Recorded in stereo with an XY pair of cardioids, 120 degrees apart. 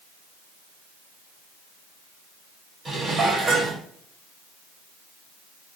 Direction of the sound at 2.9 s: 30° right.